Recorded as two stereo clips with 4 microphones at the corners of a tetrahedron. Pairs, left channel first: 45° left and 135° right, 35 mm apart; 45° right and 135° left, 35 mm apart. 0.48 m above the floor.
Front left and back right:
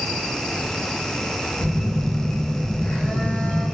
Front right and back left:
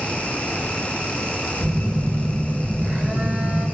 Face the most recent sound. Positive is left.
turn(degrees=100)